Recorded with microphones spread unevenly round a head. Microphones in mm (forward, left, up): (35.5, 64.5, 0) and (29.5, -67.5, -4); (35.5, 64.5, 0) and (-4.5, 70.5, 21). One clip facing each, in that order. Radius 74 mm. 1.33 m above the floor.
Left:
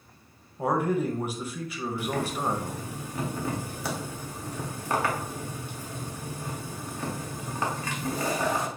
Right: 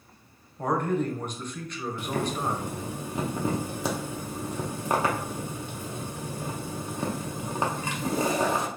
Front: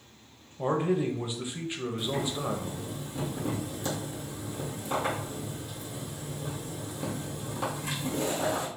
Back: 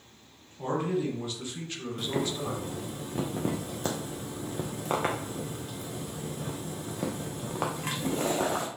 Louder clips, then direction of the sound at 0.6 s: Left 1 dB, front 2 dB; 5° left.